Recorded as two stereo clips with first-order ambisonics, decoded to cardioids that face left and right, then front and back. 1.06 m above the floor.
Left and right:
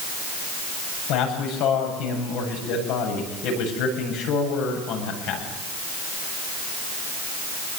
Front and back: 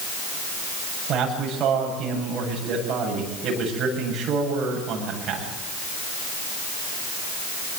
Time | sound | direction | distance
1.1 | a man speaking | 120° left | 8 m